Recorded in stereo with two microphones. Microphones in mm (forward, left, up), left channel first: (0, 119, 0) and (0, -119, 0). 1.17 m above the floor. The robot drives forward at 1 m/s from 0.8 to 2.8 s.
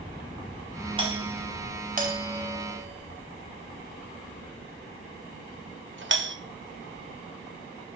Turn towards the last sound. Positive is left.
turn(degrees=-55)  # may be behind; listen again after turning